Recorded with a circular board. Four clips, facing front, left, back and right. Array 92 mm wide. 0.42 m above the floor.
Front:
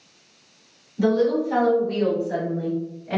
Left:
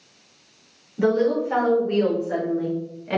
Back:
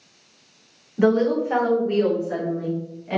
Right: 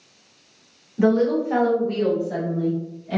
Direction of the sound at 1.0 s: 170° right.